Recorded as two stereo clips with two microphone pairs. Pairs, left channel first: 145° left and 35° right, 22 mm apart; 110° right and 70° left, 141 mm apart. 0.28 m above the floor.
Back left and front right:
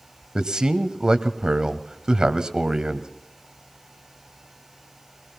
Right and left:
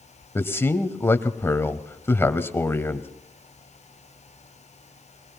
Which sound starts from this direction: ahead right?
A man speaking, at 0.3 s.